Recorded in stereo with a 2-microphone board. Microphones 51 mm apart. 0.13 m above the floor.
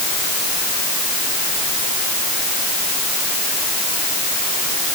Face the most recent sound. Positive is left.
No sound to turn to.